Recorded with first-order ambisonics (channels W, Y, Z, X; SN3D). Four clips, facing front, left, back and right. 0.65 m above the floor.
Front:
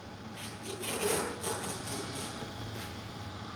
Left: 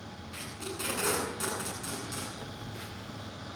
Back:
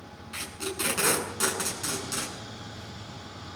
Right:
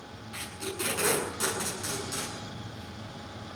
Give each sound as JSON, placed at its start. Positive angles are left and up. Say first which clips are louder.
{"t": 0.3, "sound": "tape being pulled", "louder": "right 4 dB, back 9 dB", "azimuth_deg": -175, "distance_m": 8.5}
{"t": 2.4, "sound": "a phone buzzing", "louder": "even, even", "azimuth_deg": 40, "distance_m": 1.2}